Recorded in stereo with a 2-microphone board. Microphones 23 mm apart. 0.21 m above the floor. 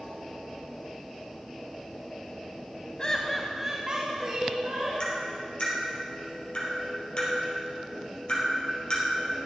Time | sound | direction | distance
3.0 | laughter | 35° left (ahead or behind) | 1.1 m
5.0 | tapping | 45° left (ahead or behind) | 3.5 m